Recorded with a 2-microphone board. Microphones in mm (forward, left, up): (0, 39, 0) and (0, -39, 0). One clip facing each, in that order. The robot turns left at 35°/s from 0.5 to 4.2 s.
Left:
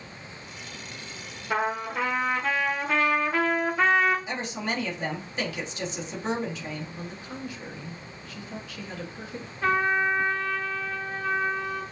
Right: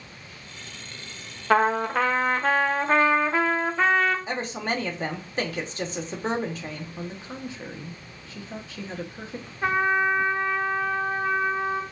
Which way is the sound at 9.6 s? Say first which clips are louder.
Right 1 dB; 20° right (ahead or behind).